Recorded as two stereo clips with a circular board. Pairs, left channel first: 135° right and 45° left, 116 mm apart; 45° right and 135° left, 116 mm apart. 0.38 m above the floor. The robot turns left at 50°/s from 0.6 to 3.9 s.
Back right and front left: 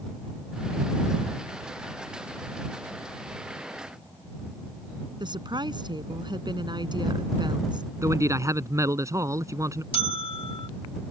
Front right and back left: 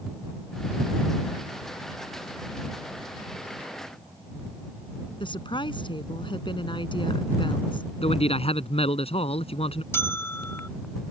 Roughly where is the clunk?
I don't hear a clunk.